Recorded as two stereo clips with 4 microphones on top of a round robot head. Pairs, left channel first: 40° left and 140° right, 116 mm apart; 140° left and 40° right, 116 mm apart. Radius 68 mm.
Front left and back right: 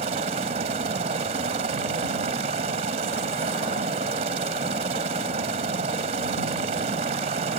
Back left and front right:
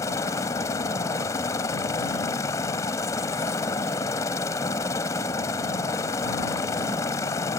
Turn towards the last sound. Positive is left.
turn(degrees=-160)